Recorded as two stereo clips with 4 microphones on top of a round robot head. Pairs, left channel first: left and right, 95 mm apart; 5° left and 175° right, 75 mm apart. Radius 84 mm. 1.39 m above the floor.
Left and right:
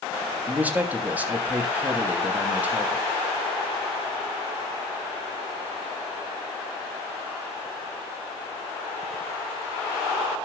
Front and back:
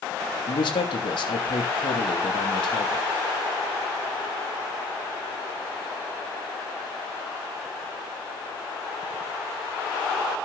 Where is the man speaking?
15° right, 3 m.